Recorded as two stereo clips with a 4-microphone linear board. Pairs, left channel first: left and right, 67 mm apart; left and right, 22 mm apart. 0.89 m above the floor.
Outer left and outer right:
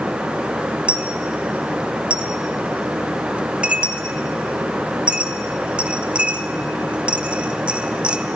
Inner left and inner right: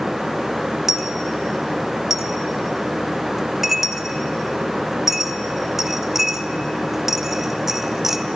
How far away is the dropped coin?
About 0.9 m.